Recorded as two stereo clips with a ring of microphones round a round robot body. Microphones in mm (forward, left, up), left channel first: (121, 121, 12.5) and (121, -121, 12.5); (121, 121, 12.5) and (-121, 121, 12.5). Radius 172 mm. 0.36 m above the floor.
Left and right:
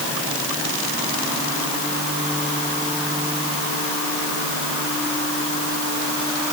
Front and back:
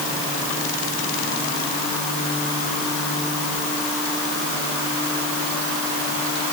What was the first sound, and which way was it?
Only background noise.